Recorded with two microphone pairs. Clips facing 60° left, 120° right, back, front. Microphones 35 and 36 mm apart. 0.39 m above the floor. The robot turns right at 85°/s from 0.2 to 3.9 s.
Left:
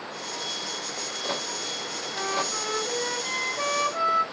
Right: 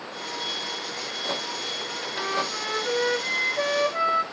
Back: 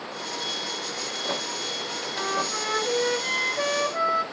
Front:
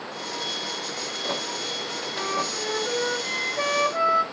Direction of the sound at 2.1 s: 145° left.